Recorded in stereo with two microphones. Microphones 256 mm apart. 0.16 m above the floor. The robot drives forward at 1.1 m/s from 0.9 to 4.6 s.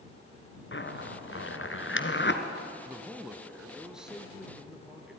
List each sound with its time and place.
0.7 s a zipper: 50° left (ahead or behind), 1.8 m; by 2.4 s 45° left (ahead or behind), 1.9 m
2.9 s a man speaking: 5° right (ahead or behind), 1.1 m; by 5.2 s centre (ahead or behind), 2.5 m